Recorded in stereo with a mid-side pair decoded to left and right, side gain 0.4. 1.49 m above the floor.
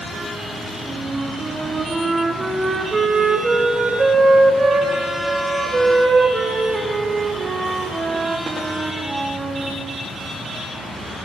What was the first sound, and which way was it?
A flute, 35° right.